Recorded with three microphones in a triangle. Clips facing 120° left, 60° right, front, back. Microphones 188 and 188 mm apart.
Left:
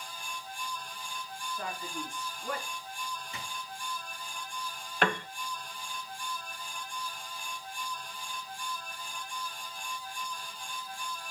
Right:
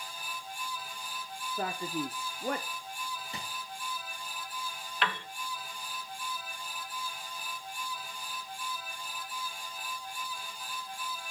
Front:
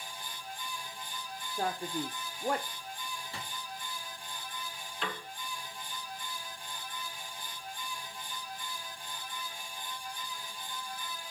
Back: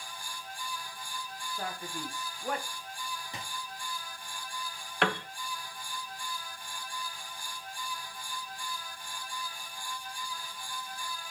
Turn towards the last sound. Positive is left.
turn(degrees=160)